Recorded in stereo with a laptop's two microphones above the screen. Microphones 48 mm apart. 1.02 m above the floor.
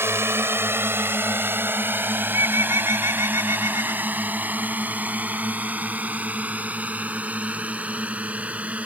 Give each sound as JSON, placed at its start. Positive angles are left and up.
{"t": 0.0, "sound": "a drone", "side_deg": -60}
{"t": 2.2, "sound": "a bird", "side_deg": -75}